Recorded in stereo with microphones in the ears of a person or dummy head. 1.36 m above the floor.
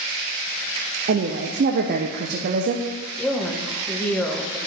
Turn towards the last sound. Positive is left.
turn(degrees=5)  # may be behind; listen again after turning